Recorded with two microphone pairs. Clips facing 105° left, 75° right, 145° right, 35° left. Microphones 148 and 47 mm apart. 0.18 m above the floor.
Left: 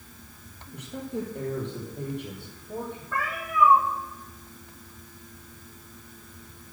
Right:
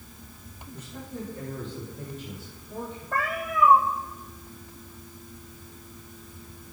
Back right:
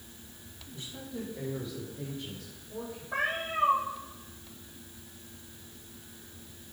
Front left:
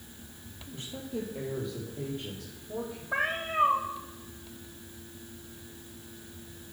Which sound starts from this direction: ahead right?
A cat meowing, at 3.1 s.